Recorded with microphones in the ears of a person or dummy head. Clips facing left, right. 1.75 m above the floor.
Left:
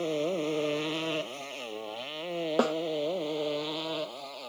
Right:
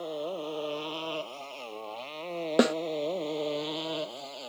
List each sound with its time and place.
0.0 s a motorcycle: 35° left (ahead or behind); by 4.5 s 10° right (ahead or behind)
2.6 s a snare drum: 25° right (ahead or behind)